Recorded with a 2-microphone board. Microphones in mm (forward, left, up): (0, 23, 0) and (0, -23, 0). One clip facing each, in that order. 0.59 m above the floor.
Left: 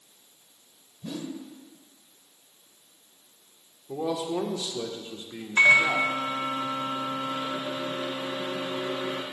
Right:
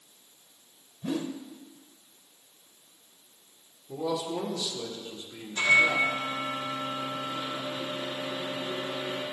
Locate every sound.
1.0 s a whoosh: 30° right (ahead or behind), 0.7 m
3.9 s a man speaking: 30° left (ahead or behind), 1.7 m
5.6 s a microwave: 70° left (ahead or behind), 2 m